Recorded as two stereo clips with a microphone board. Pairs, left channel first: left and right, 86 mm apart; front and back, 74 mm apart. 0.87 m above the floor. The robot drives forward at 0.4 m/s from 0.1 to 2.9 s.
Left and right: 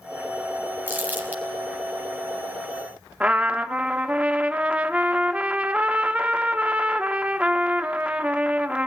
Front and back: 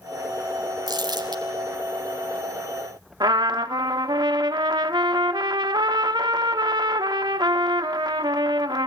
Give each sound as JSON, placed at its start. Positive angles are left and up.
{"t": 0.9, "sound": "crumpling", "azimuth_deg": -160, "distance_m": 3.5}
{"t": 3.2, "sound": "a trumpet", "azimuth_deg": -165, "distance_m": 1.0}